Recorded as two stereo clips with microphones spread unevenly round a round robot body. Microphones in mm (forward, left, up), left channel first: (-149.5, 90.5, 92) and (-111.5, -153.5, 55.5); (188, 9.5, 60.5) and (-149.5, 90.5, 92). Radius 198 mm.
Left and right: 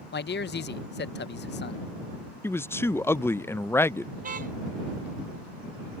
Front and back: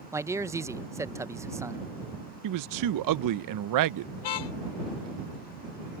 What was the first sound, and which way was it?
A man speaking, 80° left.